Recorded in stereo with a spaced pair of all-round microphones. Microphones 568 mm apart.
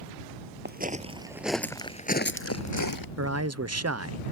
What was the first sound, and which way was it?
Footsteps, 15° right (ahead or behind).